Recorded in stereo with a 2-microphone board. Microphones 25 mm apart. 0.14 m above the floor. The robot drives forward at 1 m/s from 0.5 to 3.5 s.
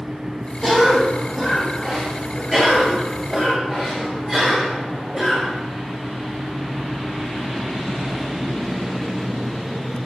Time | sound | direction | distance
0.6 | a cough | 15° left (ahead or behind) | 4.5 m